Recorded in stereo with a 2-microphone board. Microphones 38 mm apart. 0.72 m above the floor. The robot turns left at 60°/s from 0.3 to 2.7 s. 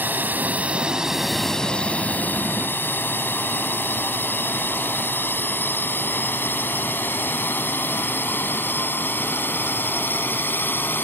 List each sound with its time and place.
0.0 s a drone: 60° right (ahead or behind); by 11.1 s 70° left (ahead or behind)